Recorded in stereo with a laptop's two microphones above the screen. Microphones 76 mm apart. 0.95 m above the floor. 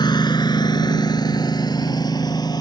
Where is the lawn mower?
65° left (ahead or behind); by 2.6 s 55° left (ahead or behind).